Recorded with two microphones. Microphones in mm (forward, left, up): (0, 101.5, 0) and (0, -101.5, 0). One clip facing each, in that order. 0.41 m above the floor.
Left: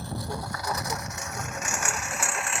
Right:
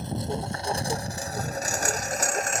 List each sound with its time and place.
0.0 s a lawn mower: 20° right (ahead or behind); by 2.6 s 40° right (ahead or behind)